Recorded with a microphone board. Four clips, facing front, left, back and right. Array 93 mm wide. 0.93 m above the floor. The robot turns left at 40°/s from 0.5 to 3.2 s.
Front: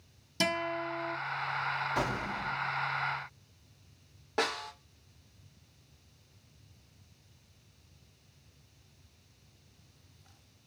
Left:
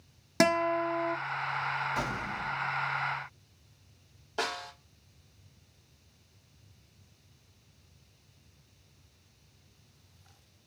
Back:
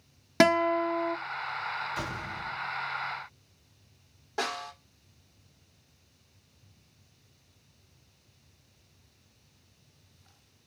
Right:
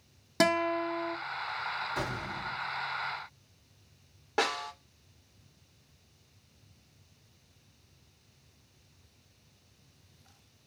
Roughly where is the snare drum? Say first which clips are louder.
Right 4 dB, front 1 dB; ahead right.